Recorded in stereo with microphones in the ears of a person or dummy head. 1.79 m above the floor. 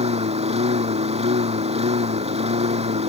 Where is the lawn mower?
30° right (ahead or behind).